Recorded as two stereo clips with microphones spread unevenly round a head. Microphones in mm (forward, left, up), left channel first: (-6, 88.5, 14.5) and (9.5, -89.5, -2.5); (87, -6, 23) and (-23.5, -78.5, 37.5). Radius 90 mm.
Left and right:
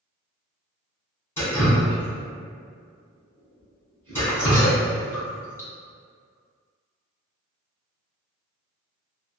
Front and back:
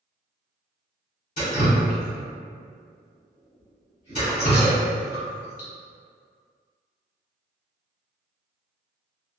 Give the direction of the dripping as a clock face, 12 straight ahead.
11 o'clock.